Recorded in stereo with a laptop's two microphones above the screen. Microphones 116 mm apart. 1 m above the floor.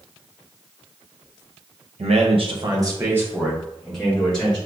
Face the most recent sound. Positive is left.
turn(degrees=10)  # may be behind; listen again after turning